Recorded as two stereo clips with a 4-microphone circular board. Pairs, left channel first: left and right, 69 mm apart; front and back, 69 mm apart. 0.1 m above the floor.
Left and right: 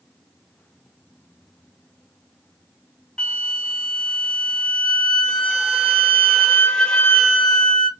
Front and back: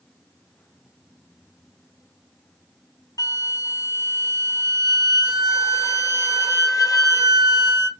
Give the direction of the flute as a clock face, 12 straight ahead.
12 o'clock.